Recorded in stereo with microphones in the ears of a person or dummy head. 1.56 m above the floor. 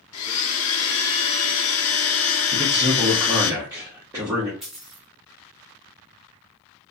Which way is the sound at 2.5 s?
20° right (ahead or behind).